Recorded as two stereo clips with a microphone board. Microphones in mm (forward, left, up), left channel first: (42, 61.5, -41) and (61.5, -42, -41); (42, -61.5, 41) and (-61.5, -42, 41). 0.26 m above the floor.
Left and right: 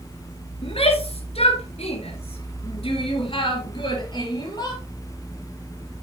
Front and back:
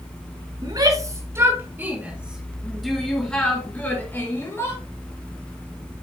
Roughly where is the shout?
Behind left.